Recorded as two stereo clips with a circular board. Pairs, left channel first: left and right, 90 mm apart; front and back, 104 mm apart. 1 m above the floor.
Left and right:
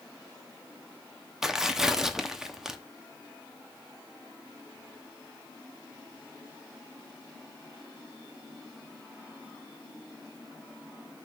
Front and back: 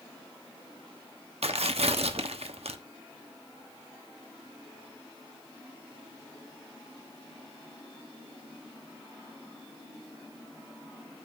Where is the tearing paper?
175° right, 0.8 m.